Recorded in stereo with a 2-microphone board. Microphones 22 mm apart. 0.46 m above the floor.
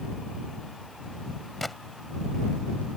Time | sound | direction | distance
1.6 | a gunshot | centre (ahead or behind) | ?